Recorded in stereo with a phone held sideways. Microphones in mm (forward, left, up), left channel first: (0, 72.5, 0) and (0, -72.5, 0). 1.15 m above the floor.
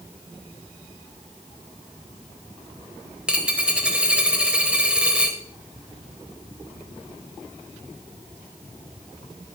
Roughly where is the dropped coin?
Centre.